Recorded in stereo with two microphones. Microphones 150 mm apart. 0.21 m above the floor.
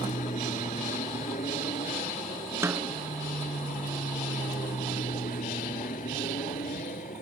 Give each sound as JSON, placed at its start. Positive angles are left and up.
{"t": 0.0, "sound": "an aircraft", "side_deg": 55}
{"t": 2.6, "sound": "a snare drum", "side_deg": -15}